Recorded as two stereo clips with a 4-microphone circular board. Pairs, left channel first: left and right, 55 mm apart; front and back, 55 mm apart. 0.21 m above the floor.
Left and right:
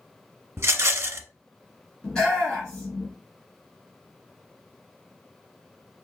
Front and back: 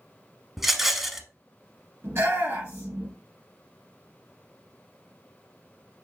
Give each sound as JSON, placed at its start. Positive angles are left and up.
{"t": 0.6, "sound": "a rattle", "azimuth_deg": -95, "distance_m": 0.7}
{"t": 2.0, "sound": "a shout", "azimuth_deg": 165, "distance_m": 2.5}